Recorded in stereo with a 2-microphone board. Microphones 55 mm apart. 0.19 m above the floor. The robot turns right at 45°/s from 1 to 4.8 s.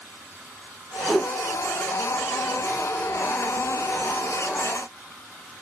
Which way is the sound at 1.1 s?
10° left (ahead or behind).